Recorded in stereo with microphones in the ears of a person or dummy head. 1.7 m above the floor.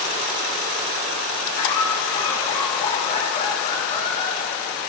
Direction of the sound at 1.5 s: 50° left (ahead or behind).